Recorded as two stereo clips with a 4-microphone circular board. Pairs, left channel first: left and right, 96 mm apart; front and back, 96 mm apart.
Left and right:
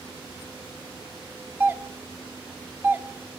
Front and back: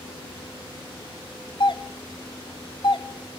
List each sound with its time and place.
1.6 s a doorbell: 25° right, 0.9 m